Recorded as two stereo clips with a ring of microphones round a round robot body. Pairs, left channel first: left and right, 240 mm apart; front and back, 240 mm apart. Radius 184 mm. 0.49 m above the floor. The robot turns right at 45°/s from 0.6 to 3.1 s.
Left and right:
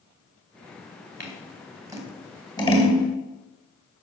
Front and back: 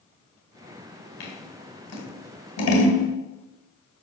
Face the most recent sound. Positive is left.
turn(degrees=40)